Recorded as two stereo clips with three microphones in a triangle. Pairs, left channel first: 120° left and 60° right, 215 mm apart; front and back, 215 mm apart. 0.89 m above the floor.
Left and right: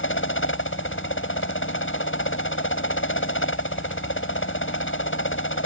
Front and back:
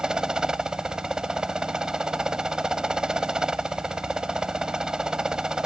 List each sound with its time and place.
0.0 s a helicopter: 95° left